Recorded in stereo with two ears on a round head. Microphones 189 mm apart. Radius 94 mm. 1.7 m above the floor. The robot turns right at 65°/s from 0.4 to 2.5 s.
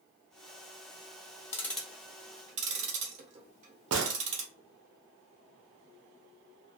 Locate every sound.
1.5 s ticking: 15° left (ahead or behind), 0.7 m; by 4.5 s 35° right (ahead or behind), 0.7 m
3.9 s a gunshot: 75° right (ahead or behind), 0.6 m